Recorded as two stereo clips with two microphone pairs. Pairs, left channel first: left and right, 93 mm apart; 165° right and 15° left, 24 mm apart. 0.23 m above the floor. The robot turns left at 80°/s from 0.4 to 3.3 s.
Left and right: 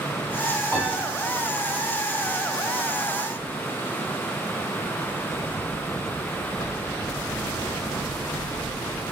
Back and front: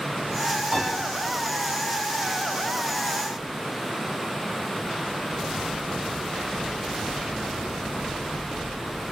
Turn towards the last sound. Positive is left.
turn(degrees=-165)